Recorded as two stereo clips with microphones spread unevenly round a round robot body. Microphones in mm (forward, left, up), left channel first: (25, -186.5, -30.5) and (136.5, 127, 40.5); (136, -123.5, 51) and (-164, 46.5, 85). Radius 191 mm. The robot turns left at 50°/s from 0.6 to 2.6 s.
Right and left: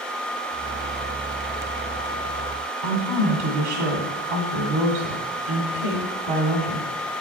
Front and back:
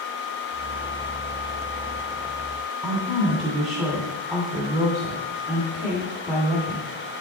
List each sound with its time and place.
2.8 s a woman speaking: 65° left, 2 m